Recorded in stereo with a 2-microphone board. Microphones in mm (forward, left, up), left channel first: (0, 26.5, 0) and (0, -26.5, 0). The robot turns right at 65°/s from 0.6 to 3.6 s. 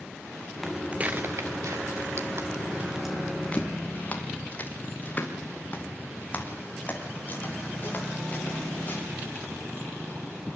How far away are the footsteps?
About 1.0 m.